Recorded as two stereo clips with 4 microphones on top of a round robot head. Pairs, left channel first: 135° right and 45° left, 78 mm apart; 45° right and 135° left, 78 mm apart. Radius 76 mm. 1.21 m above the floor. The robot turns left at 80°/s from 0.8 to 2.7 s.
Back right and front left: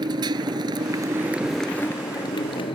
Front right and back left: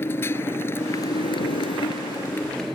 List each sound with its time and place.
0.0 s a motorcycle: 15° left; by 2.8 s 135° right